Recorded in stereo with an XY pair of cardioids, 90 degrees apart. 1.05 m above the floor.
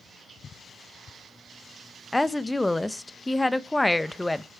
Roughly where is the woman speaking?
Ahead.